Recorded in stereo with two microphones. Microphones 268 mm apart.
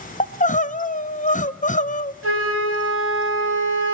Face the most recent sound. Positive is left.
turn(degrees=-55)  # may be behind; listen again after turning